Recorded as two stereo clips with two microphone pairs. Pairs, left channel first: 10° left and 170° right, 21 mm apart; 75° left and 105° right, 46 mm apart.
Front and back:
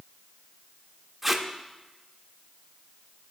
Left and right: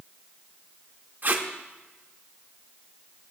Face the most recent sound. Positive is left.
turn(degrees=-85)